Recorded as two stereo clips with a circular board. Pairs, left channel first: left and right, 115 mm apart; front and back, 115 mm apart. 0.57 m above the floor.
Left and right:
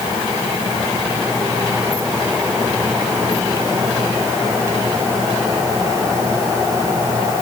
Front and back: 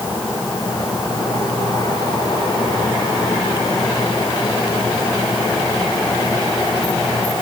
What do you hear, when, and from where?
Only background noise.